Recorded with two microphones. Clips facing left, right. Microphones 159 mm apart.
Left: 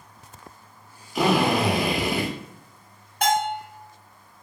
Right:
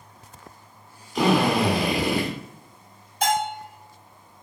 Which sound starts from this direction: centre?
A drill, at 1.1 s.